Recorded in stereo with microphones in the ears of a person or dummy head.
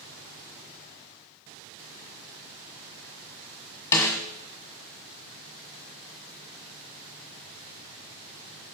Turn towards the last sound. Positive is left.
turn(degrees=15)  # may be behind; listen again after turning